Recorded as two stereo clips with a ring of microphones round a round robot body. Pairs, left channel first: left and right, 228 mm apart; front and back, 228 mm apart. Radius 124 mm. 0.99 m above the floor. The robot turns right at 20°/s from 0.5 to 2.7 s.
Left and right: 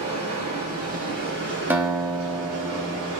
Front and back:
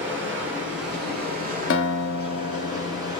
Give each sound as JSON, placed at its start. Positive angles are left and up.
{"t": 0.0, "sound": "running water", "azimuth_deg": -155, "distance_m": 1.0}
{"t": 1.7, "sound": "a guitar", "azimuth_deg": -10, "distance_m": 0.5}